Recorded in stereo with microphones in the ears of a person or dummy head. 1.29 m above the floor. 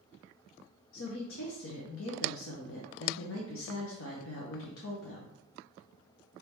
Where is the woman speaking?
75° left (ahead or behind), 0.9 m.